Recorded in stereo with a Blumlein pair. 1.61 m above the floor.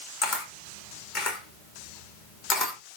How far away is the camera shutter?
About 2 m.